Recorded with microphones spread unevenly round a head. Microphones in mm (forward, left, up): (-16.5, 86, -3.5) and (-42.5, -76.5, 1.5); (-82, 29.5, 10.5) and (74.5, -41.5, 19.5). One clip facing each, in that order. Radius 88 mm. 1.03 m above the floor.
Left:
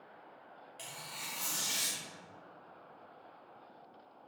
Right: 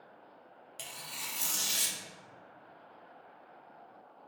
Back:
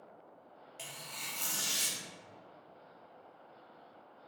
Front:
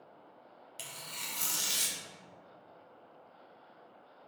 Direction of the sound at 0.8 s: 65° right.